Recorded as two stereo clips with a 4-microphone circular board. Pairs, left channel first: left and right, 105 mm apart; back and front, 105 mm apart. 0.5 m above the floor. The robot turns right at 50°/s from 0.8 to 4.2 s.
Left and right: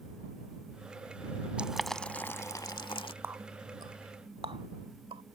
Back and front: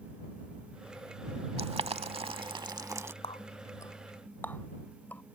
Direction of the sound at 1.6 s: 10° right.